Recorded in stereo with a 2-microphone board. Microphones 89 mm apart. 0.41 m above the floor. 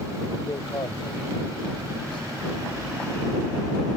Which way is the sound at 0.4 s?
55° left (ahead or behind).